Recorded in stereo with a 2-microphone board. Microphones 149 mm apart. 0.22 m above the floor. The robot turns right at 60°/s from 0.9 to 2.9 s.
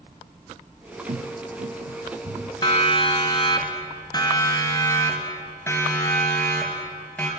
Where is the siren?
30° left (ahead or behind), 2.5 m; by 7.3 s 10° left (ahead or behind), 4.5 m.